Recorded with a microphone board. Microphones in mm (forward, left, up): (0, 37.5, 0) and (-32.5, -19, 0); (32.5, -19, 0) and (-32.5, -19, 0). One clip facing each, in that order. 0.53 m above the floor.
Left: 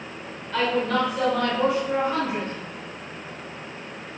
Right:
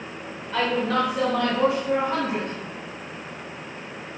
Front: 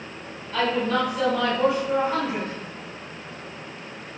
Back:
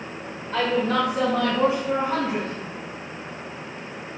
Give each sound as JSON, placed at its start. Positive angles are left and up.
{"t": 0.5, "sound": "a woman speaking", "azimuth_deg": 160, "distance_m": 1.6}